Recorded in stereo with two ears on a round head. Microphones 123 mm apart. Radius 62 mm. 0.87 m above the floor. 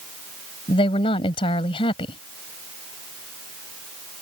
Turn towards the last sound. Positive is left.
turn(degrees=35)  # may be behind; listen again after turning